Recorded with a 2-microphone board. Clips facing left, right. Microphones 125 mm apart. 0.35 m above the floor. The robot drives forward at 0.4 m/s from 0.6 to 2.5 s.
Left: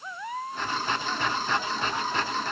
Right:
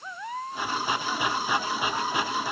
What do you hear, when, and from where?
Only background noise.